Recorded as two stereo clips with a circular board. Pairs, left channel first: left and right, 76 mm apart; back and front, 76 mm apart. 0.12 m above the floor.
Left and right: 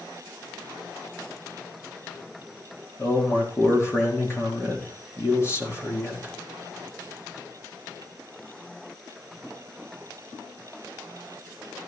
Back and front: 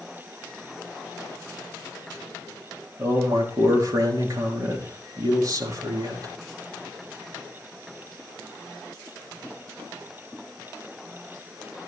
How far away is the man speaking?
About 4 m.